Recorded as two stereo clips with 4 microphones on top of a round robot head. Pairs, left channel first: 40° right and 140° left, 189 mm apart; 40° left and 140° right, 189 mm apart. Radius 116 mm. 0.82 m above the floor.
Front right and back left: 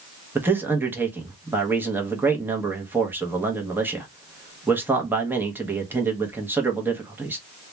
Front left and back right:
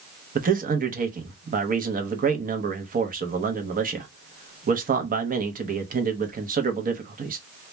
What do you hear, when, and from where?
0.3 s a man speaking: 145° right, 0.8 m